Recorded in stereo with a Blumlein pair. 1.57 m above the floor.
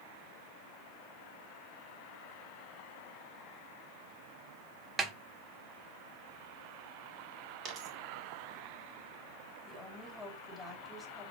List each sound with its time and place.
5.0 s a snare drum: 20° right, 1.3 m
7.7 s a dropped coin: 25° right, 2.5 m
9.7 s a woman speaking: 10° left, 4 m